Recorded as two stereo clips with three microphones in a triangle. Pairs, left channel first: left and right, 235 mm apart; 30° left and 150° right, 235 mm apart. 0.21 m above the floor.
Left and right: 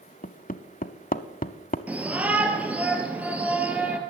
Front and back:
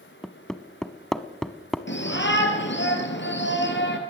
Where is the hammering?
115° left, 0.9 m.